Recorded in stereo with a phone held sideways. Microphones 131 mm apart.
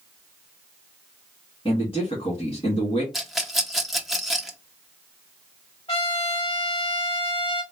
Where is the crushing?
I don't hear crushing.